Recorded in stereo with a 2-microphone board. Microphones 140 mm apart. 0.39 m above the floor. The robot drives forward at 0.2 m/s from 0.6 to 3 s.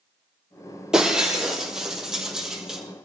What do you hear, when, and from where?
0.9 s breaking glass: 5° right (ahead or behind), 4 m